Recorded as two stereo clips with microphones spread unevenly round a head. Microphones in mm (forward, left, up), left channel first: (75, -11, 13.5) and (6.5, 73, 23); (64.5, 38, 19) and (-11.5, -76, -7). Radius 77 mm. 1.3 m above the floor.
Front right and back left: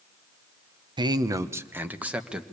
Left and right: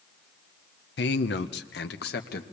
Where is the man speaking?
80° left, 0.8 m; by 2.4 s 45° left, 1.5 m.